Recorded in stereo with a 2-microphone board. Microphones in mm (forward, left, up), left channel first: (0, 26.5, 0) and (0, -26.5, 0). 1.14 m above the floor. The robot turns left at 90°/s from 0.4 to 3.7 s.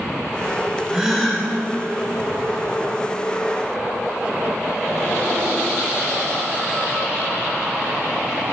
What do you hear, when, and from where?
0.9 s a gasp: 160° right, 1.6 m; by 1.5 s 150° left, 1.6 m